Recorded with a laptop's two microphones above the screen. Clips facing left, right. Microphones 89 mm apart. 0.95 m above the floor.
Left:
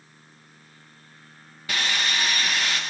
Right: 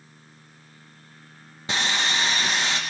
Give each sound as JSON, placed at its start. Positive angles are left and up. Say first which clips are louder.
{"t": 1.7, "sound": "sawing", "louder": "right 2 dB", "side_deg": -25, "distance_m": 0.8}